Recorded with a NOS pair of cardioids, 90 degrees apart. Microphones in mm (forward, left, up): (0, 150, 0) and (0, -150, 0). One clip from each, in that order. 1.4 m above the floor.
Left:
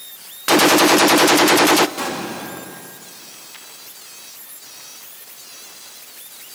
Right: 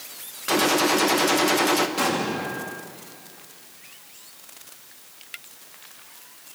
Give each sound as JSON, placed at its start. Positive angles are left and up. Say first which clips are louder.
{"t": 0.5, "sound": "a gunshot", "louder": "left 8 dB", "azimuth_deg": 45, "distance_m": 0.8}
{"t": 2.0, "sound": "an explosion", "louder": "right 1 dB", "azimuth_deg": -10, "distance_m": 2.5}